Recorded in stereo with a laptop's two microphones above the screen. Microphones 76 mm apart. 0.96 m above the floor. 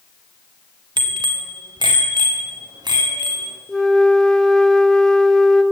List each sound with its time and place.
1.0 s a bicycle bell: 80° right, 2 m; by 3.6 s 65° right (ahead or behind), 6 m
3.7 s a flute: 5° left (ahead or behind), 1.6 m